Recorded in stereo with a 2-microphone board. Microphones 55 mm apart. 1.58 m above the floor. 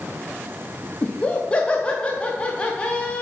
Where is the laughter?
20° left (ahead or behind), 1.0 m.